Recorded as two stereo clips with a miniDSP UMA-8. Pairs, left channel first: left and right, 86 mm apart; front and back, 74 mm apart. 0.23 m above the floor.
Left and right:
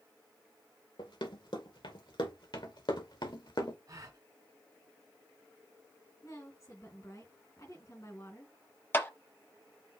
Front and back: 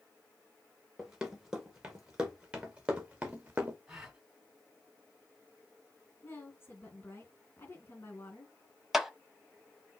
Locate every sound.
1.0 s running footsteps: 95° left, 3 m; by 3.8 s 115° left, 1.6 m
3.9 s a gasp: 105° right, 1.6 m
6.2 s a woman speaking: 50° left, 2.5 m
8.9 s a clap: 95° left, 0.8 m